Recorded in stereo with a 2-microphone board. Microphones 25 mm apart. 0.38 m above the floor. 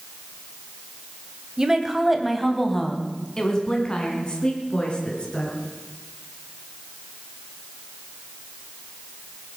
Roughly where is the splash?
No splash in this recording.